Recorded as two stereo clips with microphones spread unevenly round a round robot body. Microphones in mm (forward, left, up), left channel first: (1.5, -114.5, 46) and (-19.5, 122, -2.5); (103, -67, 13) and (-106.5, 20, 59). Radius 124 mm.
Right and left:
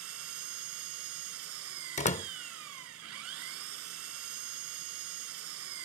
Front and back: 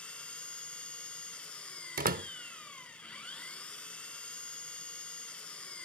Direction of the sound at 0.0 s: 65° left.